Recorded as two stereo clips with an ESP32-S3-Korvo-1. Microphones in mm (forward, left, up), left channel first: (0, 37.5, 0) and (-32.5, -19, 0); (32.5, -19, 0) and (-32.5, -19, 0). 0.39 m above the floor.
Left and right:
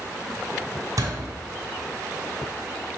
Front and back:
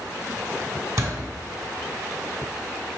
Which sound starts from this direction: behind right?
A door slam, at 1.0 s.